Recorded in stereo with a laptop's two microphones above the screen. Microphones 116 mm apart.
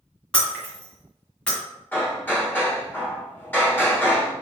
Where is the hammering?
15° left (ahead or behind), 1.1 m.